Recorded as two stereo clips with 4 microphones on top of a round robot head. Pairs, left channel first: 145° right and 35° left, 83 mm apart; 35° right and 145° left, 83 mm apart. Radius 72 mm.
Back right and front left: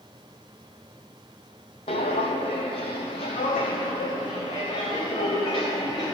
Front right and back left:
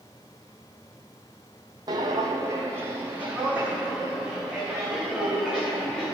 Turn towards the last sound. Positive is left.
turn(degrees=-120)